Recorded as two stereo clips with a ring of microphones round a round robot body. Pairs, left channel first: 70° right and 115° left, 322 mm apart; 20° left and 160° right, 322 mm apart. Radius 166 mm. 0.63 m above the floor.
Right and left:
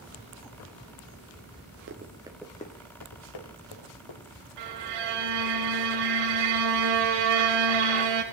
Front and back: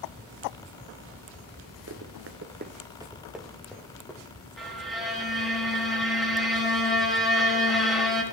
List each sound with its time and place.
1.9 s running footsteps: 160° left, 0.9 m; by 4.3 s 60° right, 1.8 m
4.6 s a violin: 110° left, 1.7 m